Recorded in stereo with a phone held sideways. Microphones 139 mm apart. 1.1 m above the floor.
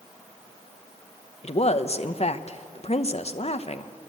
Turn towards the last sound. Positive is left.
turn(degrees=50)  # may be behind; listen again after turning